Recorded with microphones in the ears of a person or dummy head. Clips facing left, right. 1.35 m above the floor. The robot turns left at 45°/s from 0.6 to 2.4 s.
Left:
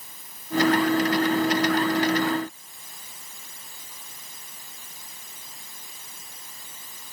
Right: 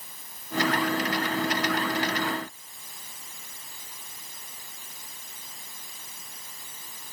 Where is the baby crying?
No baby crying in this recording.